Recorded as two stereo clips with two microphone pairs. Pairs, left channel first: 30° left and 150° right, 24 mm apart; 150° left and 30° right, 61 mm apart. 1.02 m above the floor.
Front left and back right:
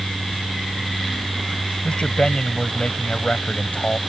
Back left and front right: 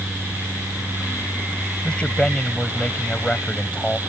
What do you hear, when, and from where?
1.8 s a man speaking: 80° left